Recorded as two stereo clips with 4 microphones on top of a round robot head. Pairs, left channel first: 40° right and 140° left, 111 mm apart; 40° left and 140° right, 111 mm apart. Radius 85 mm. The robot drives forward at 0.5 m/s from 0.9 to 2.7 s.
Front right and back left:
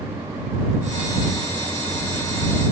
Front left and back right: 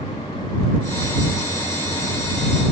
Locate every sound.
Only background noise.